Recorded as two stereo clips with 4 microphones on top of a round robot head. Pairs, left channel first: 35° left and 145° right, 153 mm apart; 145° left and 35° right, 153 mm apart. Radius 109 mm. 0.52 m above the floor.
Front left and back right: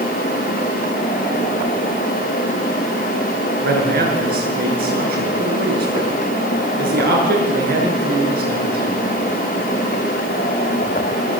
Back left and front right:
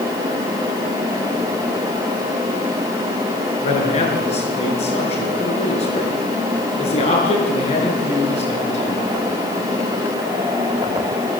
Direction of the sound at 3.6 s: 165° right.